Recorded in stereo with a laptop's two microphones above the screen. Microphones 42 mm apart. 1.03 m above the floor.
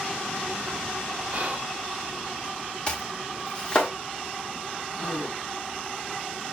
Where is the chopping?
30° left (ahead or behind), 1.4 m.